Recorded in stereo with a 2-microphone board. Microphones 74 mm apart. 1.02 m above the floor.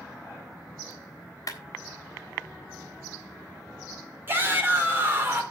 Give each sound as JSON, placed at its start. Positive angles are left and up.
{"t": 1.5, "sound": "a clap", "side_deg": 55, "distance_m": 3.5}
{"t": 4.3, "sound": "a shout", "side_deg": -30, "distance_m": 4.0}